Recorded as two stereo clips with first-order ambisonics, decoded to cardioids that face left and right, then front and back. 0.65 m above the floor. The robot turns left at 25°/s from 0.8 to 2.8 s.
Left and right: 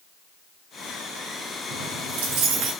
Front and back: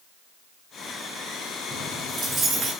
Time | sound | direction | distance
1.7 | keys jangling | 95° right | 3 m